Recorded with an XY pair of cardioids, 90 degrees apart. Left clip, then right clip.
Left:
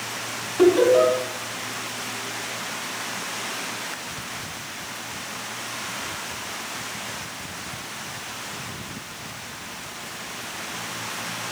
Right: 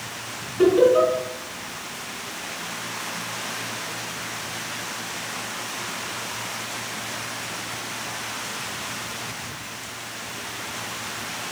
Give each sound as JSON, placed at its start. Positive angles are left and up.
{"t": 0.6, "sound": "laughter", "azimuth_deg": 70, "distance_m": 3.5}